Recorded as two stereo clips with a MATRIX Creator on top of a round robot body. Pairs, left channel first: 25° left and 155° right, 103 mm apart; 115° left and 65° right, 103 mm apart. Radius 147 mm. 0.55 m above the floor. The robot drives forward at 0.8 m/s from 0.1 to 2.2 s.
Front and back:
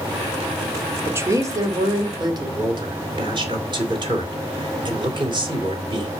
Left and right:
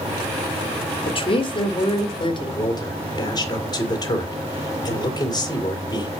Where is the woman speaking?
135° left, 1.5 m; by 2.6 s 155° left, 2 m.